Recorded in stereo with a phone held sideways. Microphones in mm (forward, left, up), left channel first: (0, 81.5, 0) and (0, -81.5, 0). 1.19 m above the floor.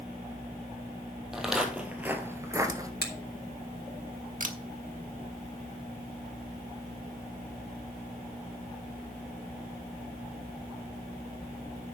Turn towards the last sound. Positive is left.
turn(degrees=-55)  # may be behind; listen again after turning